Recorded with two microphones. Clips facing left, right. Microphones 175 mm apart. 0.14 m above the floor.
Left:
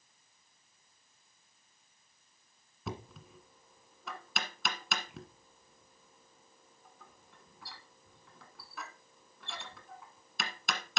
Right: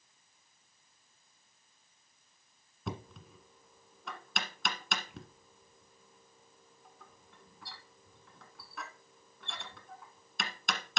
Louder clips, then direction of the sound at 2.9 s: Right 1 dB; centre (ahead or behind).